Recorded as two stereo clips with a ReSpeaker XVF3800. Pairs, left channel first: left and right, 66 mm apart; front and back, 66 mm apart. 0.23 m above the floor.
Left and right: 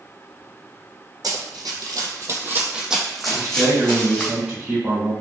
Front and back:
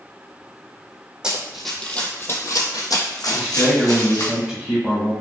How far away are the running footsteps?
About 0.7 m.